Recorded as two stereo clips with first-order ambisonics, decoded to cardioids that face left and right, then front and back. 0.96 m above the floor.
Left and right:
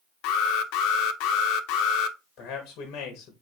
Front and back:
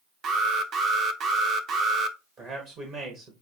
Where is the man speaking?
130° left, 1.1 m.